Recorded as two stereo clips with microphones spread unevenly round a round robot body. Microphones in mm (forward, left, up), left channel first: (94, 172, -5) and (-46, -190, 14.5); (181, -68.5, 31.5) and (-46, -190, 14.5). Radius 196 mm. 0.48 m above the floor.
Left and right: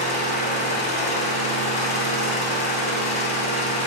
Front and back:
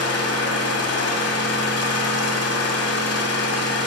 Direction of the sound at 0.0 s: 5° right.